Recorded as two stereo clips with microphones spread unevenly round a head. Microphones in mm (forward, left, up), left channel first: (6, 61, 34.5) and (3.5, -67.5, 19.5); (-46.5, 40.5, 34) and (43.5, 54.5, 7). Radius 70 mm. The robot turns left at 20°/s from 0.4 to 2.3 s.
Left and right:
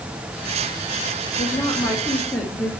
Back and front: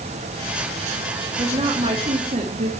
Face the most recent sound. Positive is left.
turn(degrees=20)